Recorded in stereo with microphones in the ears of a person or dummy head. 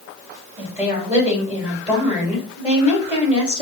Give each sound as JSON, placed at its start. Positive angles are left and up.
{"t": 0.6, "sound": "a woman speaking", "side_deg": -10, "distance_m": 2.5}